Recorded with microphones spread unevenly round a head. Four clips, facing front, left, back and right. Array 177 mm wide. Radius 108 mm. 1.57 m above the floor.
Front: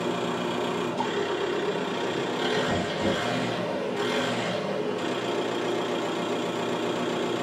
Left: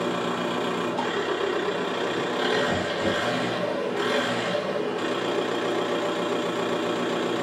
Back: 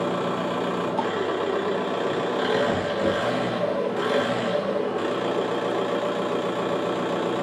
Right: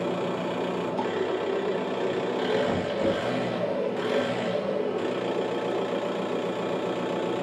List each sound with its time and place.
0.0 s an engine running: 170° left, 1.0 m
2.7 s knocking: 105° right, 1.9 m